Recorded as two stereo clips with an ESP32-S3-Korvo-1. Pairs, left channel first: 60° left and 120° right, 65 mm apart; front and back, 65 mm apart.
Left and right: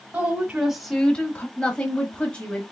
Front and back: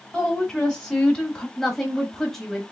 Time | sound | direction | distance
0.1 | a woman speaking | 85° right | 1.2 m
1.6 | a woman speaking | 75° left | 1.0 m